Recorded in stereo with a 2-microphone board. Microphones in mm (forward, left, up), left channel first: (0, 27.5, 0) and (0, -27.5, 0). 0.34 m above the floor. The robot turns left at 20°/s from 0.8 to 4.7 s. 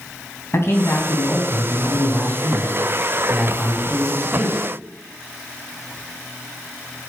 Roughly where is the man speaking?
Ahead left.